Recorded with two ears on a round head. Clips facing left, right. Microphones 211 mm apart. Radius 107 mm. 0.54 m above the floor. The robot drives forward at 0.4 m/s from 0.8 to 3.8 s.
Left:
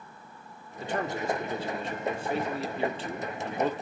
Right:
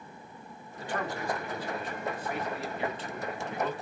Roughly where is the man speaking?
Left.